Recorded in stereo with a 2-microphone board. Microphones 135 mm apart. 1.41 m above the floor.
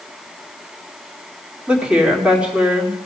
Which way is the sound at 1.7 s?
5° right (ahead or behind).